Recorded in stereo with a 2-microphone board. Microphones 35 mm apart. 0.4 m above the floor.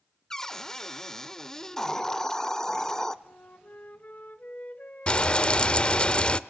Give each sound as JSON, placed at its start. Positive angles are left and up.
{"t": 0.3, "sound": "a cupboard door", "side_deg": 15, "distance_m": 0.9}
{"t": 1.8, "sound": "a hiss", "side_deg": 15, "distance_m": 0.6}
{"t": 3.2, "sound": "a flute", "side_deg": 50, "distance_m": 1.3}
{"t": 5.1, "sound": "frying", "side_deg": 30, "distance_m": 0.6}